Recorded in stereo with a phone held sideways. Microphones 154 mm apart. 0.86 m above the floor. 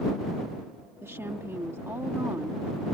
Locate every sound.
1.0 s a woman speaking: 15° right (ahead or behind)